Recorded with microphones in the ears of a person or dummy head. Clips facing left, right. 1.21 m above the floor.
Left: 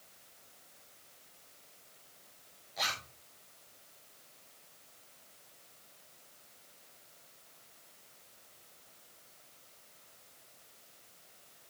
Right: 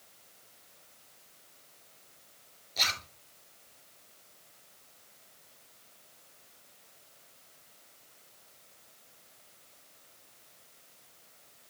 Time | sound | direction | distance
2.8 | a zipper | 55° right (ahead or behind) | 2.5 m